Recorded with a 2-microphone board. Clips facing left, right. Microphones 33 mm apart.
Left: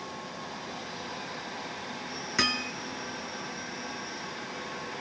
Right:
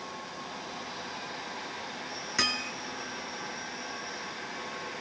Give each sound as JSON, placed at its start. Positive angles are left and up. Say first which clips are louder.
{"t": 2.4, "sound": "hammering", "louder": "left 2 dB", "side_deg": 5}